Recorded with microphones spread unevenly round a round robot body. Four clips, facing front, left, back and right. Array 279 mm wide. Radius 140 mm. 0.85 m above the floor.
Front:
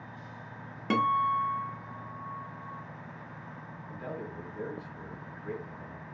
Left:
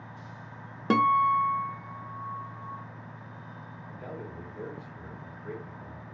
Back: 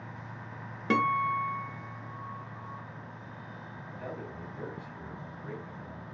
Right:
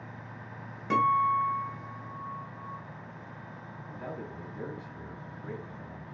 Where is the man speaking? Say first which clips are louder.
Right 1 dB, front 2 dB; 100° right, 2.5 m.